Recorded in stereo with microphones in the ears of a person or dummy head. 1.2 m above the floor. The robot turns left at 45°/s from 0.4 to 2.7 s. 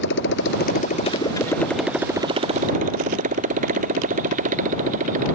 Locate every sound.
0.0 s a motorcycle: 60° left (ahead or behind); by 5.4 s 40° right (ahead or behind)